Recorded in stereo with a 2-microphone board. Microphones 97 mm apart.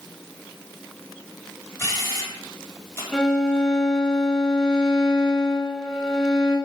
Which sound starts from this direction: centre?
A violin, at 3.1 s.